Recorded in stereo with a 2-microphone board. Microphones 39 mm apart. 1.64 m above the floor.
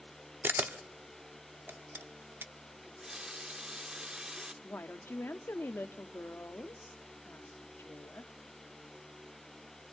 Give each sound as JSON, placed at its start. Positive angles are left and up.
{"t": 0.4, "sound": "a camera shutter", "side_deg": -60, "distance_m": 0.6}
{"t": 2.8, "sound": "a running tap", "side_deg": -20, "distance_m": 0.6}
{"t": 4.6, "sound": "a woman speaking", "side_deg": 75, "distance_m": 0.6}